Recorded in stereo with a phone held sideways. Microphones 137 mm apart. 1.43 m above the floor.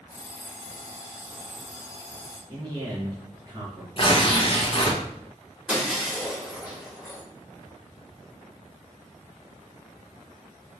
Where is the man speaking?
35° right (ahead or behind), 1.6 m.